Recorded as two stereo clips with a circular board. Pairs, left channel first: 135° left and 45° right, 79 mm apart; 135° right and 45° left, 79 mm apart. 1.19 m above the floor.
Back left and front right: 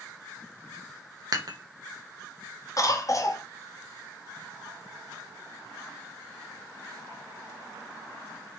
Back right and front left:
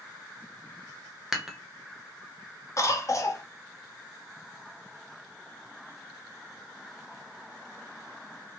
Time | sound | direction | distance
1.3 | dishes clattering | 40° right | 0.6 m
2.8 | a cough | straight behind | 0.7 m